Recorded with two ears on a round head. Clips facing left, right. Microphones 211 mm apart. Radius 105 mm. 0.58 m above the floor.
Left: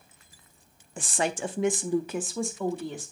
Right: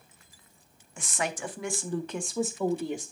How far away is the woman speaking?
About 0.8 m.